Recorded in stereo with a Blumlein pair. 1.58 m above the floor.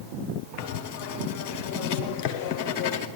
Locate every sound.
0.6 s writing: 40° left, 1.1 m